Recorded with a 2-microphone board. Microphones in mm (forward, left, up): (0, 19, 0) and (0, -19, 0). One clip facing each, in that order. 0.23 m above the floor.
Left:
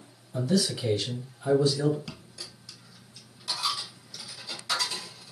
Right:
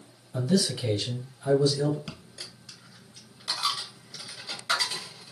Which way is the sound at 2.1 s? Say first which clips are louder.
Right 1 dB; 35° right (ahead or behind).